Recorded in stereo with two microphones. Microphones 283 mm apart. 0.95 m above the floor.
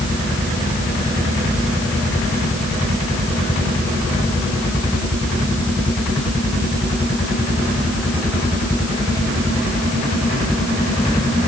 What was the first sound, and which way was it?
Only background noise.